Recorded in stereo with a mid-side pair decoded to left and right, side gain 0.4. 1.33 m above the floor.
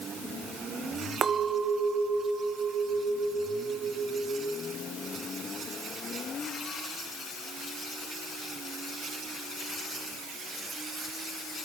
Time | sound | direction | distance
1.2 | a clink | 60° right | 0.6 m